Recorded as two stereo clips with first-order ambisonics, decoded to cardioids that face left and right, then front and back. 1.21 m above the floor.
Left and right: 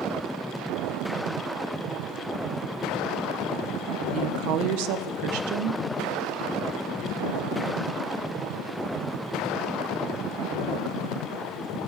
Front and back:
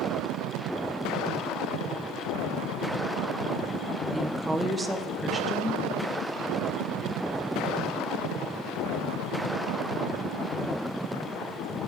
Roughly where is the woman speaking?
Right.